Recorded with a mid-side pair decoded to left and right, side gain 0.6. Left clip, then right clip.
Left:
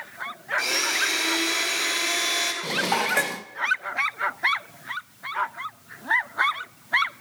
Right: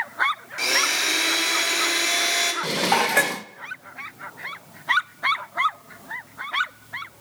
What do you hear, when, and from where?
0.6 s a blender: 15° right, 2.5 m
2.6 s dishes clattering: 20° right, 0.6 m